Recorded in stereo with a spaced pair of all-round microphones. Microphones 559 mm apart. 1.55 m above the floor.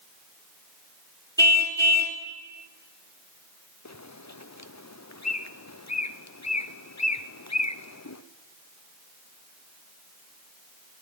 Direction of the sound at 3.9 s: 30° left (ahead or behind).